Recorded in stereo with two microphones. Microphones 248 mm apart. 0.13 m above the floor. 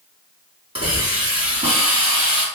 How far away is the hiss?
About 1.7 m.